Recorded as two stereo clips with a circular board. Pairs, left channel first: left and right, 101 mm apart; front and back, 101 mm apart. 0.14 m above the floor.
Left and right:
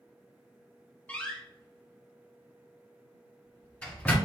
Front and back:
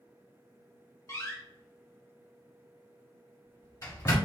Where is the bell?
I don't hear a bell.